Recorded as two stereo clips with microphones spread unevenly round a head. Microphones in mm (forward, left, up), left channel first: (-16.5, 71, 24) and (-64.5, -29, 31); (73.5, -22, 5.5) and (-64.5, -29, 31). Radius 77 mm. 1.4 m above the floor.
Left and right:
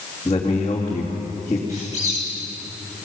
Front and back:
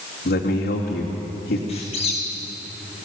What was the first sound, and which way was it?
A man speaking, 5° right.